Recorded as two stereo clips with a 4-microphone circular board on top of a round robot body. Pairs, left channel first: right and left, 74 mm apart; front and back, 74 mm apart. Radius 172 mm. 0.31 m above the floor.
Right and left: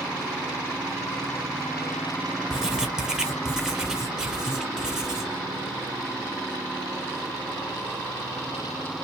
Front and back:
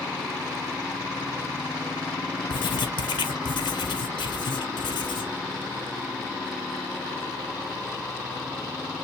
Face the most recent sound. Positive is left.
turn(degrees=10)